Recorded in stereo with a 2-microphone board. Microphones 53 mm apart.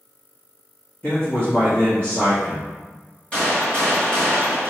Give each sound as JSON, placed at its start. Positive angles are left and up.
{"t": 1.0, "sound": "a man speaking", "side_deg": 25, "distance_m": 1.5}
{"t": 3.3, "sound": "a gunshot", "side_deg": 20, "distance_m": 1.3}